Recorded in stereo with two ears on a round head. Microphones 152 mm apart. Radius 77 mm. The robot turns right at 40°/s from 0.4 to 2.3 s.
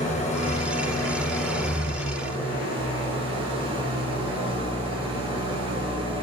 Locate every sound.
0.0 s an engine running: 135° left, 5.5 m; by 6.2 s 145° right, 5.5 m